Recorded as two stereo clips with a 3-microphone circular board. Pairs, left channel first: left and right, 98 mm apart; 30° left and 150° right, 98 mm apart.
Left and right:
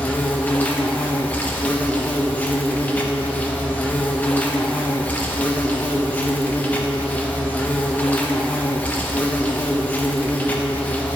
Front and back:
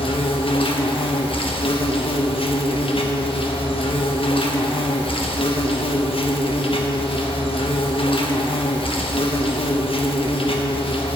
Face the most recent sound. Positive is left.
turn(degrees=20)